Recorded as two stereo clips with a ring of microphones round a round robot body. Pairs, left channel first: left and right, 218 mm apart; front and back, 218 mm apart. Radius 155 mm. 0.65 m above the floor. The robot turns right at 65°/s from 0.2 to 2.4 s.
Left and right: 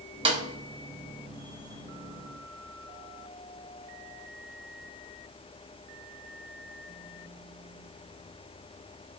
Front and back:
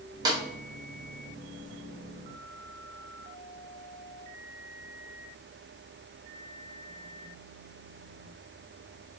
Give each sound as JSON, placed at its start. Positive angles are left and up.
{"t": 0.2, "sound": "a snare drum", "azimuth_deg": -130, "distance_m": 1.0}